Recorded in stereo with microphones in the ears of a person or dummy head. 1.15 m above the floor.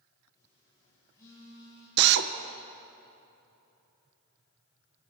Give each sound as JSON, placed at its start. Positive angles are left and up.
{"t": 0.3, "sound": "a phone buzzing", "side_deg": 20, "distance_m": 10.0}
{"t": 2.0, "sound": "a drill", "side_deg": -55, "distance_m": 1.1}